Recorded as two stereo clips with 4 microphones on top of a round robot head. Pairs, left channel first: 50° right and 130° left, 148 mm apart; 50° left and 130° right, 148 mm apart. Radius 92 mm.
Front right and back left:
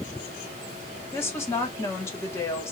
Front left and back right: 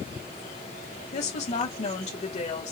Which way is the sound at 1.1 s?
20° left.